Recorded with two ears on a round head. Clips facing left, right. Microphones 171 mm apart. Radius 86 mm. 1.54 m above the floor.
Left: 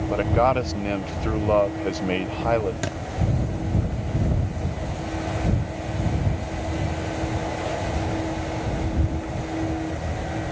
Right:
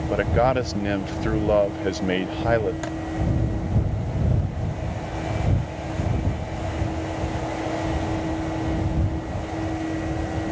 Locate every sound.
0.1 s a man speaking: 10° right (ahead or behind)
2.8 s a thud: 30° left (ahead or behind)